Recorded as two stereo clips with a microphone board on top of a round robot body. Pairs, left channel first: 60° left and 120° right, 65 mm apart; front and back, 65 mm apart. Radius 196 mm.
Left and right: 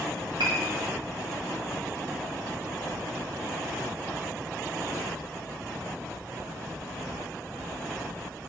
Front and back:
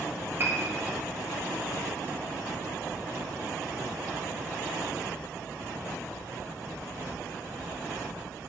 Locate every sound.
0.4 s a piano: 120° right, 1.2 m